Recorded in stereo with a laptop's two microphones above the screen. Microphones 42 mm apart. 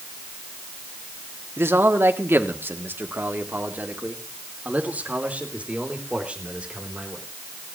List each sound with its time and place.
1.6 s a man speaking: 70° right (ahead or behind), 2 m; by 7.2 s 25° right (ahead or behind), 4 m